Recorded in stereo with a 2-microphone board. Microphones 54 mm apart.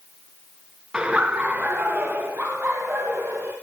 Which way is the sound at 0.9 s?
15° right (ahead or behind).